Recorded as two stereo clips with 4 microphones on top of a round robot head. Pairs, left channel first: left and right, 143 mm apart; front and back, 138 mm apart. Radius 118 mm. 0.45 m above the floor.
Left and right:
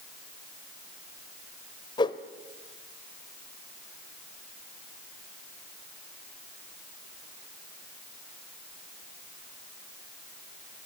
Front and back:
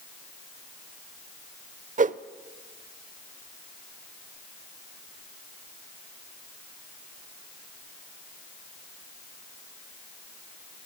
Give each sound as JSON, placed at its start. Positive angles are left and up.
{"t": 2.0, "sound": "a whoosh", "azimuth_deg": 155, "distance_m": 0.7}